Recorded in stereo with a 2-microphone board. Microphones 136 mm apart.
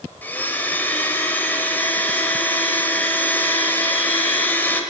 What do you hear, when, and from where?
0.2 s a blender: 15° left (ahead or behind), 2 m